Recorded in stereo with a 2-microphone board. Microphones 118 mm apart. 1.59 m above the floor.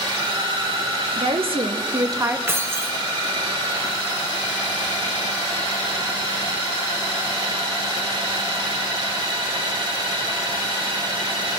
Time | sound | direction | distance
1.2 | a woman speaking | 60° right (ahead or behind) | 1.3 m
2.5 | keys jangling | 20° right (ahead or behind) | 0.9 m